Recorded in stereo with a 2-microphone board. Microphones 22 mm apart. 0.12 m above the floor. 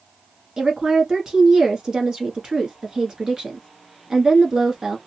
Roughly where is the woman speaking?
Right.